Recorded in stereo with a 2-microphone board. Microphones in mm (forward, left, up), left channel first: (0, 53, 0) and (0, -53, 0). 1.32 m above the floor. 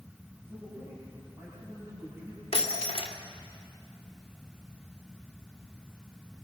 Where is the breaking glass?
65° left (ahead or behind), 1.9 m.